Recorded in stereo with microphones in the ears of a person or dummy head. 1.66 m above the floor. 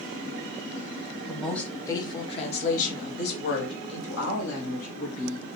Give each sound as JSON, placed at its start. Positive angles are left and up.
{"t": 1.3, "sound": "a woman speaking", "side_deg": 0, "distance_m": 1.0}